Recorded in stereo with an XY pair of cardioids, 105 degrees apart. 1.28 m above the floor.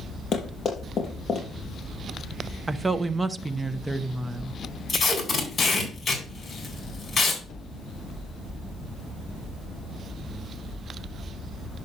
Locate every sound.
0.3 s running footsteps: 45° left, 5 m
2.7 s a woman speaking: 15° right, 0.9 m
4.9 s tape being pulled: 30° left, 4 m